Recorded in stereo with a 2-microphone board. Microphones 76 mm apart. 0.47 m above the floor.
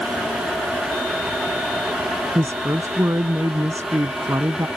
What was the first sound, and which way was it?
A woman speaking, 40° right (ahead or behind).